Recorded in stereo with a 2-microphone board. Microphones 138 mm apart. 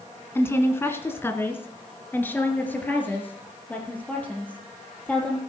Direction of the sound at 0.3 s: 20° left (ahead or behind).